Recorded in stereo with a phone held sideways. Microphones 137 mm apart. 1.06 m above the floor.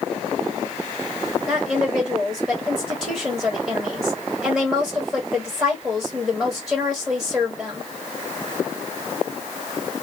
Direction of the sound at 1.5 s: Centre (ahead or behind).